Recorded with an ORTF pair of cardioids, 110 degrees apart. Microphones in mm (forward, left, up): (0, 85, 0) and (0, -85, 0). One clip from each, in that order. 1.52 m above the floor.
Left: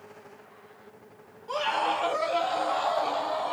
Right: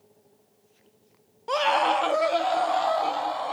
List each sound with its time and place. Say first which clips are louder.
1.5 s a scream: right 5 dB; 55° right, 0.8 m; by 3.5 s 25° right, 2.5 m